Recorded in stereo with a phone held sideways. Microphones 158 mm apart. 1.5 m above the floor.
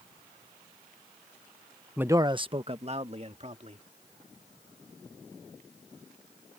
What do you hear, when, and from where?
2.0 s a man speaking: 5° right (ahead or behind); by 3.9 s 45° right (ahead or behind)